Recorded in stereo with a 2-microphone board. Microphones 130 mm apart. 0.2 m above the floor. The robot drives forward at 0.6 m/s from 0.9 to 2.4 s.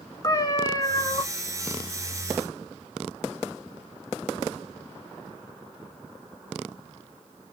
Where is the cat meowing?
30° left (ahead or behind), 1.0 m; by 1.2 s 35° left (ahead or behind), 0.9 m.